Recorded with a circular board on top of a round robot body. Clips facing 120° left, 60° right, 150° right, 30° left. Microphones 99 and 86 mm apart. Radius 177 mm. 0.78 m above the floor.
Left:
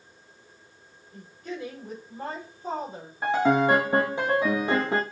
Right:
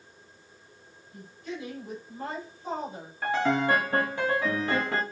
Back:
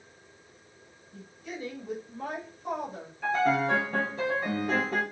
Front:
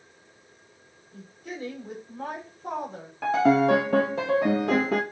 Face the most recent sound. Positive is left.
turn(degrees=50)